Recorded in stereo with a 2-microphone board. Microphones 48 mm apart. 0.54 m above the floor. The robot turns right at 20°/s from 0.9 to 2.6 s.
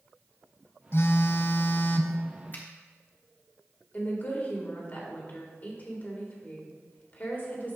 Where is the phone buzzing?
55° left (ahead or behind), 0.6 m; by 2.2 s 30° left (ahead or behind), 0.6 m.